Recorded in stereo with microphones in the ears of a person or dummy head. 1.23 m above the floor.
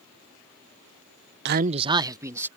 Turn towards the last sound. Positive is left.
turn(degrees=-15)  # may be behind; listen again after turning